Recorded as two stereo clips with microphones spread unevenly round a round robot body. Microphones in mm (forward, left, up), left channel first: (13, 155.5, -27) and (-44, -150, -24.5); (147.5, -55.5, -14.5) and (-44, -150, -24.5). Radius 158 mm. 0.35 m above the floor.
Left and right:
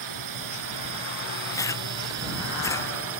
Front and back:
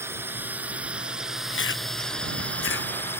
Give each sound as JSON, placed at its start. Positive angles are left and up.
{"t": 0.0, "sound": "a drone", "azimuth_deg": -75}
{"t": 1.5, "sound": "chewing", "azimuth_deg": 0}